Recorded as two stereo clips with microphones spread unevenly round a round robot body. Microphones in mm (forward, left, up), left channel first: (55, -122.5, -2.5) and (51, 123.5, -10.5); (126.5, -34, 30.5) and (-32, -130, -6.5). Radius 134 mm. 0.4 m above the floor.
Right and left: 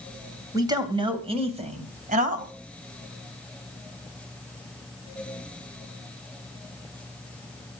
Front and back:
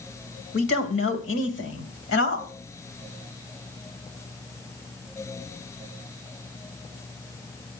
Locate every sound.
0.5 s a man speaking: 15° left, 3 m; by 2.5 s 40° left, 3 m